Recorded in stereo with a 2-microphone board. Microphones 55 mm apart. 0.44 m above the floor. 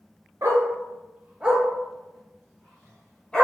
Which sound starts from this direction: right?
A dog barking, at 0.4 s.